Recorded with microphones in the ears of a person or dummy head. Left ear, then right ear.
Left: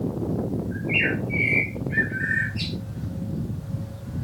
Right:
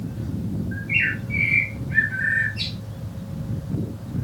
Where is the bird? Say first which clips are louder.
Right 2 dB; 30° left (ahead or behind), 3.5 m.